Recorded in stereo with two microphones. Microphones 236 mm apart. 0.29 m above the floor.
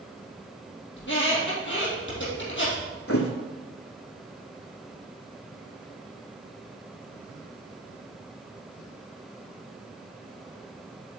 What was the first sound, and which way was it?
A squeak, 55° left (ahead or behind).